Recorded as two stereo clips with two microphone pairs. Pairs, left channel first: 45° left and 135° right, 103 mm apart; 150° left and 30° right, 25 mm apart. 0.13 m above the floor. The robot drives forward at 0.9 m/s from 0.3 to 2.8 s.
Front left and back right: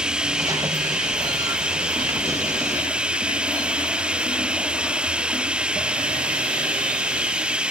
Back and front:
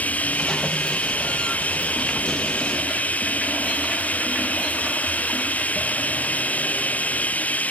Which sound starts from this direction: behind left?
Running water, at 0.0 s.